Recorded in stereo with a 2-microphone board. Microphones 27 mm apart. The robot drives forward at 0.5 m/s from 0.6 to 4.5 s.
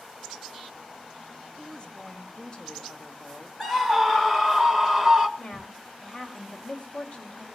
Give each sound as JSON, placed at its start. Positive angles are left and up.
{"t": 1.6, "sound": "a woman speaking", "side_deg": 35, "distance_m": 1.5}
{"t": 3.6, "sound": "a scream", "side_deg": 15, "distance_m": 0.9}
{"t": 5.4, "sound": "a woman speaking", "side_deg": 45, "distance_m": 1.8}